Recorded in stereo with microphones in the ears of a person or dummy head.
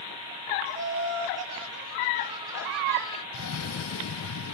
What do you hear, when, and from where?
0.7 s laughter: 65° right (ahead or behind), 1.6 m; by 3.2 s 30° left (ahead or behind), 0.6 m
3.3 s a cough: 80° left, 0.6 m